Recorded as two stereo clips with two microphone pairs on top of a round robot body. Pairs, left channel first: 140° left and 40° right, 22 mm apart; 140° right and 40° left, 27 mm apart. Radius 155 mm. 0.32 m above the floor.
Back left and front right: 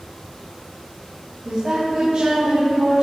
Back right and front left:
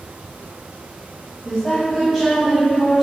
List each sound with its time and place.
1.4 s a woman speaking: 60° right, 3.5 m; by 3.0 s 45° right, 4 m